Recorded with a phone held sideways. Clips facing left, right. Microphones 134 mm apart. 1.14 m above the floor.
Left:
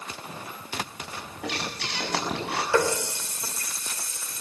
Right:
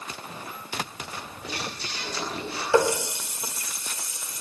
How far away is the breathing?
About 7 m.